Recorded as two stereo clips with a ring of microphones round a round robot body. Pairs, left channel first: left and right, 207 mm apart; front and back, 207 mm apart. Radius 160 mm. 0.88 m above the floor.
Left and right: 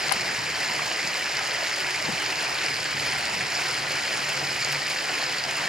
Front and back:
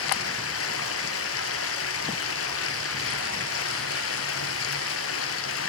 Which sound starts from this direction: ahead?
Running water, at 0.0 s.